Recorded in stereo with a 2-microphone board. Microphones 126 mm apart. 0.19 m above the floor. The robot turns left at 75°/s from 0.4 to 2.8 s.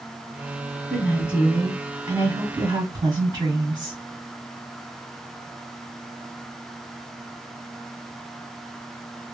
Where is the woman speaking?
20° left, 1.8 m; by 4.0 s 125° right, 1.8 m.